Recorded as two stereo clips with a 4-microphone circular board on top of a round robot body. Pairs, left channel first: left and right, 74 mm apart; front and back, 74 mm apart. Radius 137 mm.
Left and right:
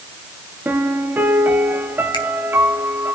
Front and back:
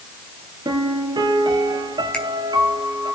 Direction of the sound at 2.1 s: 75° left.